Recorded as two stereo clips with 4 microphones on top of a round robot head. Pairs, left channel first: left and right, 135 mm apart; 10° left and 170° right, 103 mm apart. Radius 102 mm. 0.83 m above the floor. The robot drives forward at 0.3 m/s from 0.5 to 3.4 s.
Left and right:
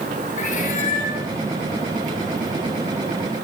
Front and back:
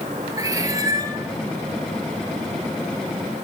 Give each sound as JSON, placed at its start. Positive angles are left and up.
{"t": 0.4, "sound": "a cat meowing", "azimuth_deg": 130, "distance_m": 3.5}